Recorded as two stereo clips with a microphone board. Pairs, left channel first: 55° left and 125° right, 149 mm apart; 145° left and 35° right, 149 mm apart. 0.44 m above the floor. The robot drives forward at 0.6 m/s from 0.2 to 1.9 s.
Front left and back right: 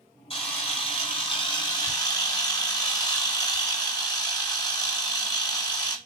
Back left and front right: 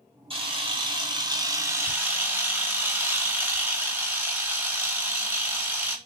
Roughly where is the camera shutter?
Ahead.